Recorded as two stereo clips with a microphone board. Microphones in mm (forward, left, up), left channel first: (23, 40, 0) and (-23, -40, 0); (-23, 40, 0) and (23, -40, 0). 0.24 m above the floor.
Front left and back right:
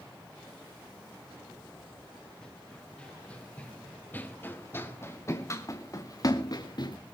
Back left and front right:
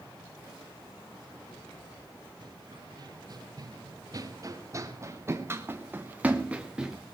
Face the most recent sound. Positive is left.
turn(degrees=20)